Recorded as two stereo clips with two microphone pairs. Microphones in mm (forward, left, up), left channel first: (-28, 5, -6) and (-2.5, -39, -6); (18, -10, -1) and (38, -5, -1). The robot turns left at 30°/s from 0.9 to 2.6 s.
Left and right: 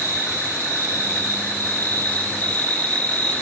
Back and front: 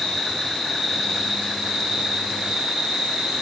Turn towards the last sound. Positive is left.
turn(degrees=60)